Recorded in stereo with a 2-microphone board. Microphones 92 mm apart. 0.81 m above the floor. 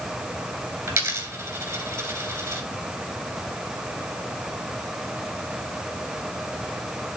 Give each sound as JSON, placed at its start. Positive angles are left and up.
{"t": 0.9, "sound": "a dropped coin", "side_deg": -25, "distance_m": 2.5}